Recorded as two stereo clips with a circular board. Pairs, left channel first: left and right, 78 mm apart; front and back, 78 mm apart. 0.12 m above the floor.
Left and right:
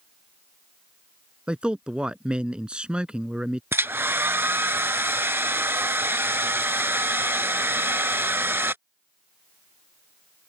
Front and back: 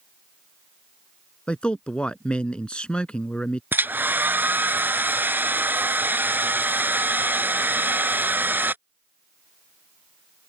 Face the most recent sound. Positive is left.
turn(degrees=-135)